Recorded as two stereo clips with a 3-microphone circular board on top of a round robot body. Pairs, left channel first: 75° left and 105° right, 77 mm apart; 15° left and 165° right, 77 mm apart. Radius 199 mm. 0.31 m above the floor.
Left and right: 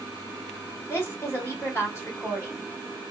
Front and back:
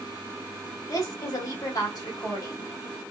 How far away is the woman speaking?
About 2 m.